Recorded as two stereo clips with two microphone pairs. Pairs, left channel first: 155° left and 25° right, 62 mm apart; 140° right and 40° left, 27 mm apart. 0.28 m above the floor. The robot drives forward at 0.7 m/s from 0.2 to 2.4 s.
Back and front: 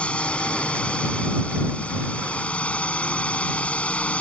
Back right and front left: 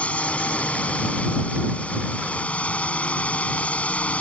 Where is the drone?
135° right; by 4.2 s 140° right.